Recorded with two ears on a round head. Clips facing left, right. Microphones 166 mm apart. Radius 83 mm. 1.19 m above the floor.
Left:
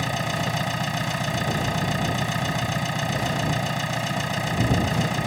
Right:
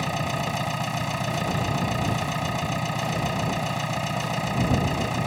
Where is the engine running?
5° left (ahead or behind).